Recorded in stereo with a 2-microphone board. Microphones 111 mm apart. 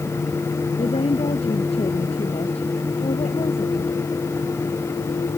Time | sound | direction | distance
0.8 | a woman speaking | 65° left (ahead or behind) | ?